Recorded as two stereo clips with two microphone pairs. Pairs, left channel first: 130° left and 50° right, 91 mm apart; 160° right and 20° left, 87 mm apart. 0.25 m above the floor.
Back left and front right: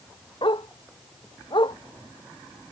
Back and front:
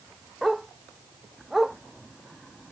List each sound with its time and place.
0.4 s a dog barking: 110° left